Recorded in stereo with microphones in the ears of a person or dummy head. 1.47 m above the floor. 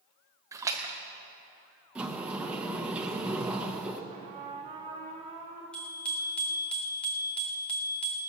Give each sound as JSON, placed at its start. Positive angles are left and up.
{"t": 0.5, "sound": "a splash", "side_deg": -15, "distance_m": 0.8}
{"t": 1.9, "sound": "a sliding door", "side_deg": -5, "distance_m": 0.9}
{"t": 4.1, "sound": "a trumpet", "side_deg": -30, "distance_m": 2.0}
{"t": 5.7, "sound": "a bicycle bell", "side_deg": 5, "distance_m": 2.5}